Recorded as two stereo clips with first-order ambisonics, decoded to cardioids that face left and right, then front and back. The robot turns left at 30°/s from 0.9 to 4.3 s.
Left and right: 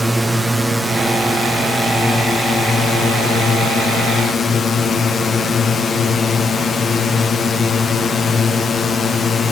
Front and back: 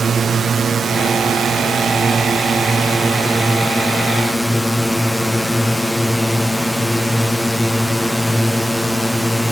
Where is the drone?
175° right; by 9.5 s 85° left.